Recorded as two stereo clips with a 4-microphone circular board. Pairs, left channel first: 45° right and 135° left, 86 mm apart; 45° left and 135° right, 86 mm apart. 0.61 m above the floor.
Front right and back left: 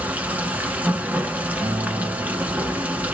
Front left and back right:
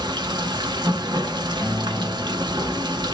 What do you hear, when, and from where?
0.0 s running water: 155° right, 1.0 m
1.6 s a guitar: 125° left, 1.1 m